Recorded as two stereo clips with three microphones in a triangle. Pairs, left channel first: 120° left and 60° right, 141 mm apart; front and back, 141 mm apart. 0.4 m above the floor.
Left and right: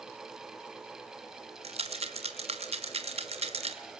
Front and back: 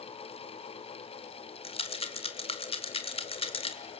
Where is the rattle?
35° right, 1.7 m.